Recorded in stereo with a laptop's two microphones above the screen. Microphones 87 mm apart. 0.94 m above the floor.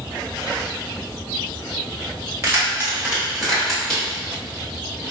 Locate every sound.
2.4 s keys jangling: 30° right (ahead or behind), 1.1 m; by 4.0 s 10° left (ahead or behind), 1.3 m